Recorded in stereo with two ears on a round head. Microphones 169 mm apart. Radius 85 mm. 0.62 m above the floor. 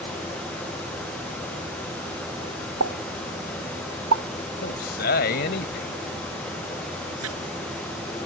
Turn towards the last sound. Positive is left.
turn(degrees=-85)